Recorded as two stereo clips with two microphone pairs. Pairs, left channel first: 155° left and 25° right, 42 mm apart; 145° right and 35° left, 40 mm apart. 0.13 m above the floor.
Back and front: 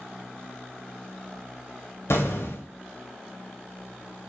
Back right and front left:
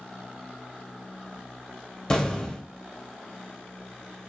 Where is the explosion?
145° left, 0.8 m.